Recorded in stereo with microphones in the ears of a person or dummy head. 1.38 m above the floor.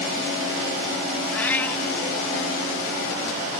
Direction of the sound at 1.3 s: 10° left (ahead or behind).